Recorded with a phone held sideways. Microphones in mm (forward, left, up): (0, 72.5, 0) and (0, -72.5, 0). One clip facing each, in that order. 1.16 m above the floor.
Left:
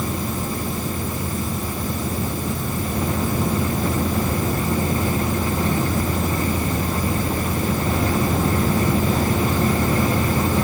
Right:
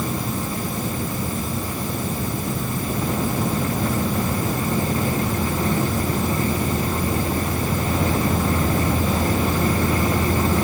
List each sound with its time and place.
Only background noise.